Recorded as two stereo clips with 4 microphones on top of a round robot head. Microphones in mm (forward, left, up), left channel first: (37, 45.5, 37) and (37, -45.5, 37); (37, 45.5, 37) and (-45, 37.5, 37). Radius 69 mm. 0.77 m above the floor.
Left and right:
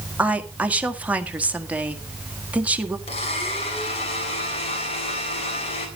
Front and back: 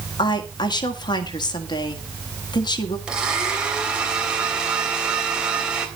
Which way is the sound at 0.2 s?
15° right.